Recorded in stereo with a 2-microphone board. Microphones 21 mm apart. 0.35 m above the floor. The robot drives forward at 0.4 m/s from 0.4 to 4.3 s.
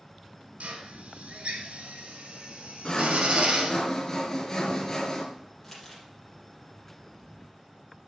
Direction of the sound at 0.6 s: 80° right.